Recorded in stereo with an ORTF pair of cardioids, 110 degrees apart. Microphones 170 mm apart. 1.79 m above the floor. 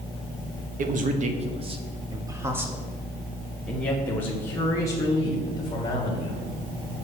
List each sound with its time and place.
0.8 s a man speaking: 55° right, 1.3 m; by 6.5 s 25° left, 3 m